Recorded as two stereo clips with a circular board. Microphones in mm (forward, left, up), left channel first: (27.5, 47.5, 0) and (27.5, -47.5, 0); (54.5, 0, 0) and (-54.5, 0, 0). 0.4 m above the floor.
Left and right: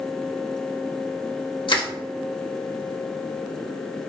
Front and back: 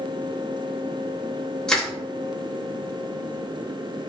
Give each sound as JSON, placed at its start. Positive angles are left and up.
{"t": 1.7, "sound": "crushing", "azimuth_deg": 85, "distance_m": 0.7}